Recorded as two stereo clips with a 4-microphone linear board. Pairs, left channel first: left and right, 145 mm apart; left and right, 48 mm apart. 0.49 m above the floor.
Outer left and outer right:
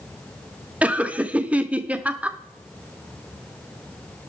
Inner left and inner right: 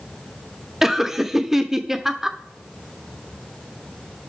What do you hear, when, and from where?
0.8 s laughter: 10° right (ahead or behind), 0.9 m